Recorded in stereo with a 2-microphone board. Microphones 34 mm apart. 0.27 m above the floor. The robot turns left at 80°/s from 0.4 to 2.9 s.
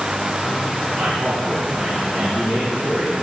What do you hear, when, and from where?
1.0 s a man speaking: 85° right, 5.5 m; by 3.1 s 120° left, 5.5 m